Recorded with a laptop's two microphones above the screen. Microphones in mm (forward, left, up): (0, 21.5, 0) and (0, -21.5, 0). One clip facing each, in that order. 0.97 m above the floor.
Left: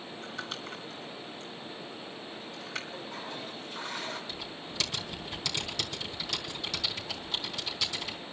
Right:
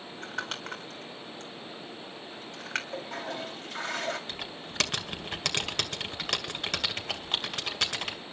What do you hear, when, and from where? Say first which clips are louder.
0.2 s crumpling: right 4 dB; 65° right (ahead or behind), 4.5 m
2.9 s a toilet flushing: right 4 dB; 85° right, 3.5 m
4.3 s typing on a keyboard: right 1 dB; 65° right (ahead or behind), 2 m